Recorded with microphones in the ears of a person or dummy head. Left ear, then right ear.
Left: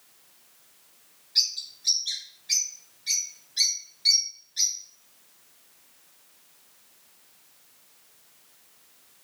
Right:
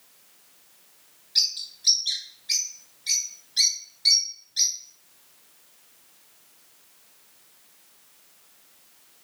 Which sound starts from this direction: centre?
A bird, at 1.4 s.